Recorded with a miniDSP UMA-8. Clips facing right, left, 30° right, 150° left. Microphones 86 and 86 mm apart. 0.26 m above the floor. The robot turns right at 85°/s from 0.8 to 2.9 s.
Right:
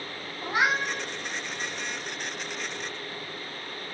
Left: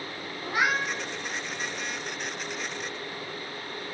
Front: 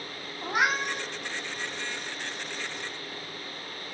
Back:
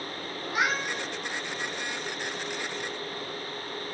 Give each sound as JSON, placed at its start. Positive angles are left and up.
{"t": 0.4, "sound": "a cat meowing", "azimuth_deg": -25, "distance_m": 1.0}